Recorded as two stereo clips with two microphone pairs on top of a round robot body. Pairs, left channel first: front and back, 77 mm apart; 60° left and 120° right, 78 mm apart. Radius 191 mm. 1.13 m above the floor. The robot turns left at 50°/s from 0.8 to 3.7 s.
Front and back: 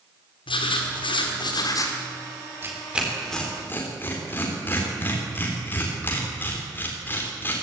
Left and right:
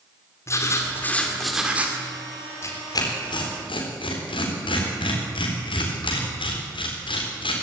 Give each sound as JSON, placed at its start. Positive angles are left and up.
{"t": 0.5, "sound": "writing", "azimuth_deg": 5, "distance_m": 2.5}
{"t": 2.6, "sound": "tearing paper", "azimuth_deg": 120, "distance_m": 4.0}